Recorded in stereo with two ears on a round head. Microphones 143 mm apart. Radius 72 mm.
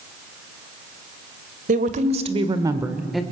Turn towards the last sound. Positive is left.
turn(degrees=5)  # may be behind; listen again after turning